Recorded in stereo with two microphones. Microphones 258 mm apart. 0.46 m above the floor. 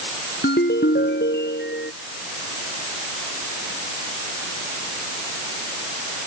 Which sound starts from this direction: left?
A ringtone, at 0.4 s.